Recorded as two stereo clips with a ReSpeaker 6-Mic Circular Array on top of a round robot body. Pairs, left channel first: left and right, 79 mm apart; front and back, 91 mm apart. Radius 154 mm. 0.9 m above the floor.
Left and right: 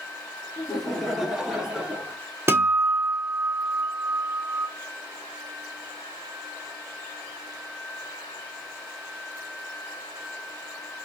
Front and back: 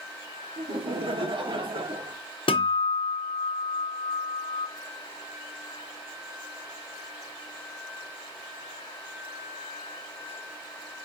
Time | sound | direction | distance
0.6 | laughter | straight behind | 2 m
2.5 | a guitar | 30° right | 1.0 m